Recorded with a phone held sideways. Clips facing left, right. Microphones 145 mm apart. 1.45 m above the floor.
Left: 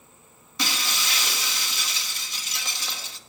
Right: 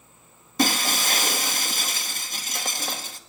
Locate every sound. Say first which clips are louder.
0.6 s breaking glass: right 8 dB; 50° right (ahead or behind), 1.1 m